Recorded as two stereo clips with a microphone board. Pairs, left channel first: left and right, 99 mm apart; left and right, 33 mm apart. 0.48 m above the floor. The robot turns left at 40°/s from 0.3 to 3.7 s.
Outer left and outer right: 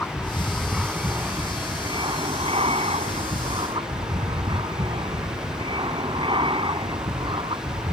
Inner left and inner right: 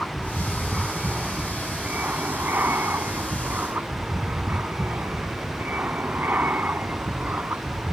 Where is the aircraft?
15° left; by 7.9 s 120° right.